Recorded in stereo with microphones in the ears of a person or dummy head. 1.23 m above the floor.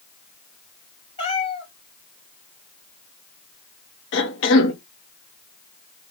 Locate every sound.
1.2 s a cat meowing: 35° left (ahead or behind), 2.5 m
4.1 s a cough: 60° left (ahead or behind), 0.7 m